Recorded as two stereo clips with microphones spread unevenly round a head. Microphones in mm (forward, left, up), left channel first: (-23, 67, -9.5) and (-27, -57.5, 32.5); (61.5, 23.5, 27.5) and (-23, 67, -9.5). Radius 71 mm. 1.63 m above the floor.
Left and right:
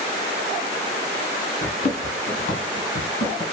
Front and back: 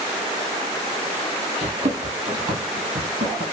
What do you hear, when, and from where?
1.6 s running footsteps: 130° left, 3 m; by 3.4 s 135° left, 4 m